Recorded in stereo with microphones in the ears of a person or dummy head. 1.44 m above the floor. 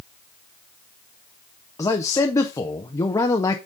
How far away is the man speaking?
About 0.6 m.